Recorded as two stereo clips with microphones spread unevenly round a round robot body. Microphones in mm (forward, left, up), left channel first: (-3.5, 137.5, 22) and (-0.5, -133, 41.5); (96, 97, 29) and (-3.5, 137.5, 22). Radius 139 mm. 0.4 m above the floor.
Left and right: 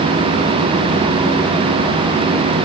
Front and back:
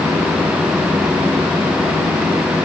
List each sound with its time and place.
Only background noise.